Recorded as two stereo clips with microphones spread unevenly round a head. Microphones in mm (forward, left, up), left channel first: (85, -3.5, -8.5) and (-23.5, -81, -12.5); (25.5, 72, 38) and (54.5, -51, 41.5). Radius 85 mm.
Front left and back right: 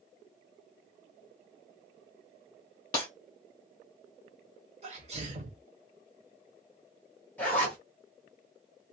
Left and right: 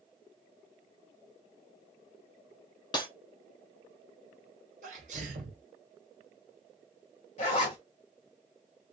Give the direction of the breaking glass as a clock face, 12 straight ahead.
10 o'clock.